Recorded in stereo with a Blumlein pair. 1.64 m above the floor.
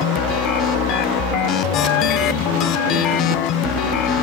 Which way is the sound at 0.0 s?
35° left.